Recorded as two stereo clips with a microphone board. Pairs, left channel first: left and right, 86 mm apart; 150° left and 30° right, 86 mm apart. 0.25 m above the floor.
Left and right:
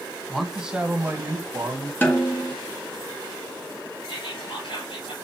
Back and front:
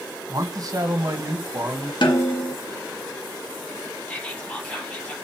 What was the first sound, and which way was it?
A man speaking, 5° left.